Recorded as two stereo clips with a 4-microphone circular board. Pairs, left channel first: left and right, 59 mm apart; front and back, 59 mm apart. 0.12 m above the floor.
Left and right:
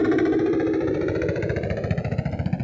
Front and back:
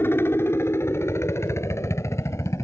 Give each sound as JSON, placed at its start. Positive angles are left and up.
{"t": 0.0, "sound": "a helicopter", "azimuth_deg": 0}